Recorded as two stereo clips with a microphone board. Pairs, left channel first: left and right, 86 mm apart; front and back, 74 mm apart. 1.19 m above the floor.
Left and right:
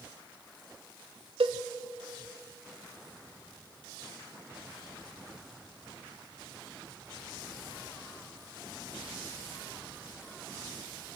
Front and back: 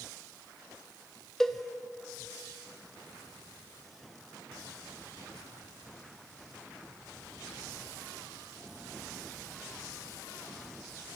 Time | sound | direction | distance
1.4 | a cowbell | 85° right | 1.4 m